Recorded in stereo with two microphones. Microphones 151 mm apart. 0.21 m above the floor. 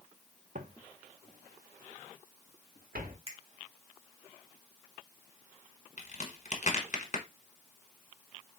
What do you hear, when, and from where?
0.6 s footsteps: 60° right (ahead or behind), 0.8 m; by 3.2 s 85° right, 2 m
3.3 s a finger snap: 40° right (ahead or behind), 1.9 m
6.0 s a crack: 55° left (ahead or behind), 1.2 m